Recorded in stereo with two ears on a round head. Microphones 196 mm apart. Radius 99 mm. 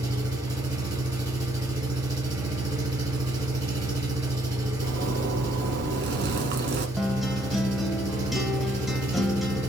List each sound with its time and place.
0.0 s an engine running: 15° right (ahead or behind), 1.7 m
4.8 s a zipper: 50° right (ahead or behind), 1.0 m
7.0 s a guitar: centre (ahead or behind), 0.5 m